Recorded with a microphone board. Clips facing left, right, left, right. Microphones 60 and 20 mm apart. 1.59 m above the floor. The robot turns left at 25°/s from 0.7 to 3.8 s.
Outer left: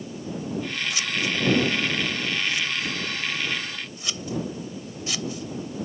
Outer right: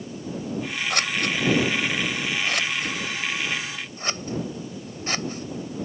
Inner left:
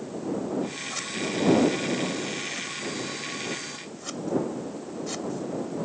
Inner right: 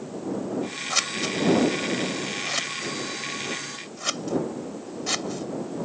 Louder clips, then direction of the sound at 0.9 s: Outer right 3 dB, inner right 8 dB; 60° right (ahead or behind).